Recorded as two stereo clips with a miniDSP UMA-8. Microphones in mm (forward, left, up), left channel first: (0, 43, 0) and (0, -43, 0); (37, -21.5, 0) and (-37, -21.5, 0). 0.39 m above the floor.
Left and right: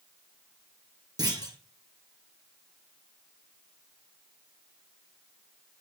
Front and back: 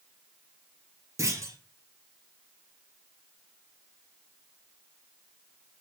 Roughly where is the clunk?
Behind right.